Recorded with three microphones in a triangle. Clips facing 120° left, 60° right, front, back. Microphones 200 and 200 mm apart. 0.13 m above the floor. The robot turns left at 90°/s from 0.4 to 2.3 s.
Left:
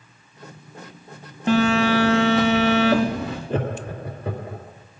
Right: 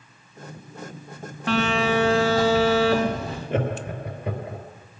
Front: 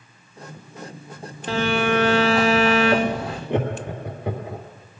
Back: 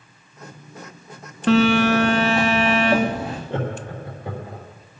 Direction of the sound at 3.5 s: 70° left.